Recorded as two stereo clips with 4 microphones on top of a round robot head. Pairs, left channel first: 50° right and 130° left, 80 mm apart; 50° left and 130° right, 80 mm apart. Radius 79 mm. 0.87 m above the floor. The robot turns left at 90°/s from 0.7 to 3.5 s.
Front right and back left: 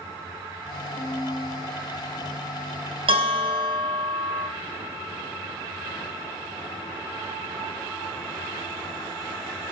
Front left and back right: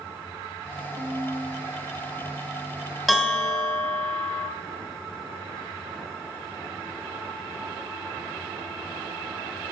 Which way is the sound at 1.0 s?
95° right.